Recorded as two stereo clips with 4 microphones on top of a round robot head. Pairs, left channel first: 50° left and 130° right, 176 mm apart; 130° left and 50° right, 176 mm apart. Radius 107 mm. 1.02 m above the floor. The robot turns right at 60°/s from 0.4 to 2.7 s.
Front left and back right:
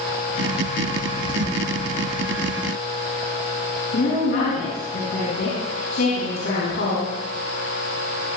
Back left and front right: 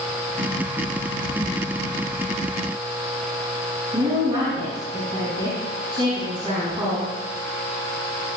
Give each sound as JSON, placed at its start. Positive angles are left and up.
{"t": 3.9, "sound": "a woman speaking", "azimuth_deg": 15, "distance_m": 7.0}